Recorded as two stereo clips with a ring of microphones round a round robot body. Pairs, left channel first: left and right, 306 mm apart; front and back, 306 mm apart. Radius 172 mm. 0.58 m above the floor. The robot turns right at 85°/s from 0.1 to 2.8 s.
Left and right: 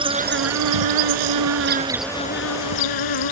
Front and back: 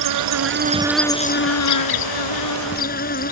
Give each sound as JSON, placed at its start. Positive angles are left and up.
{"t": 0.0, "sound": "an insect", "azimuth_deg": -165}